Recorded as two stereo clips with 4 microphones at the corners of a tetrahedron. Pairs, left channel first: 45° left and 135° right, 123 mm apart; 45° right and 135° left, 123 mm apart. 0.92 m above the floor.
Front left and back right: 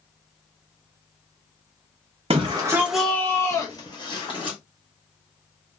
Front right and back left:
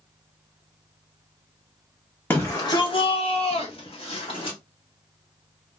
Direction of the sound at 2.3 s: 115° right.